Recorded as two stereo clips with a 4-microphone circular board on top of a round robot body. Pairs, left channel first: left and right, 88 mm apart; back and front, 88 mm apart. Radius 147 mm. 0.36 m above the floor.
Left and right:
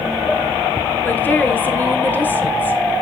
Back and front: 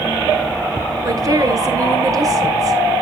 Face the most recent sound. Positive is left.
turn(degrees=30)